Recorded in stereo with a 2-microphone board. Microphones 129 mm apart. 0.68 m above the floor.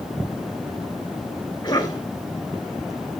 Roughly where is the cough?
Left.